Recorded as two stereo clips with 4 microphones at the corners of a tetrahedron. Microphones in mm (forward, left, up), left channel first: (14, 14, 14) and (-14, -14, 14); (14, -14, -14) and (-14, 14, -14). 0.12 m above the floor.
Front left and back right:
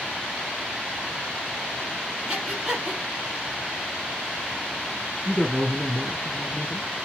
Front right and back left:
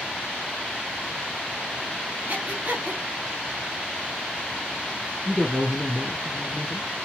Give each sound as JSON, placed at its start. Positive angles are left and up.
{"t": 2.3, "sound": "breathing", "azimuth_deg": 155, "distance_m": 1.0}
{"t": 5.2, "sound": "a man speaking", "azimuth_deg": -165, "distance_m": 1.6}